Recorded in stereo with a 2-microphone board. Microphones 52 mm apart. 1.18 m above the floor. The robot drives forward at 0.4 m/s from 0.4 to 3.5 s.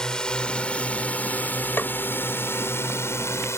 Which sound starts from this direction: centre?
A drone, at 0.0 s.